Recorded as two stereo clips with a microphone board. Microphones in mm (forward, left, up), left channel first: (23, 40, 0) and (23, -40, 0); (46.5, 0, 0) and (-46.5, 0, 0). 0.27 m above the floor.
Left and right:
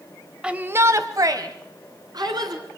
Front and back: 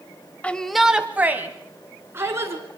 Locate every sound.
0.4 s a shout: 35° right, 0.9 m; by 2.6 s 120° right, 3 m